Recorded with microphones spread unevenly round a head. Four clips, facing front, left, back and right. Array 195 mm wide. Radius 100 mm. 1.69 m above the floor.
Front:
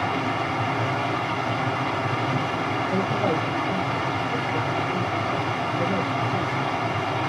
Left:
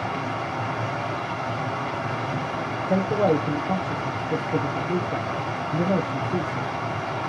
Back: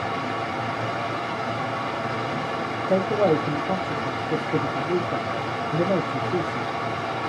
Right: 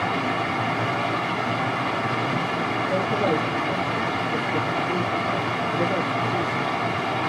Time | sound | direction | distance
0.0 | running water | 15° right | 2.5 m
2.9 | a man speaking | 155° left | 0.9 m